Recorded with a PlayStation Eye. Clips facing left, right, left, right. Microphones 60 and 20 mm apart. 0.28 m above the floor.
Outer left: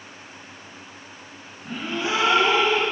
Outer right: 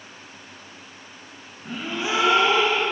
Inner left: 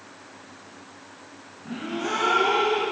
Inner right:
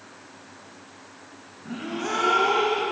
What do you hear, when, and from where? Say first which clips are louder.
1.6 s a gasp: outer left 1 dB, inner left 1 dB; 20° right (ahead or behind), 9 m